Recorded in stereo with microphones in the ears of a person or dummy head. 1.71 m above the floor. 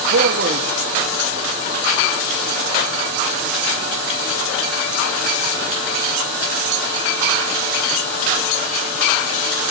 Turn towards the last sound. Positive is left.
turn(degrees=-35)  # may be behind; listen again after turning